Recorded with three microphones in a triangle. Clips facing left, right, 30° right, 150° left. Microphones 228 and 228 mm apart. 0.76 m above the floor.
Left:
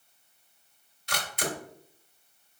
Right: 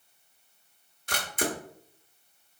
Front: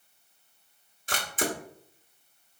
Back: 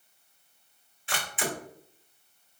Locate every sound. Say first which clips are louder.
1.1 s a camera shutter: right 3 dB, front 3 dB; 70° right, 1.2 m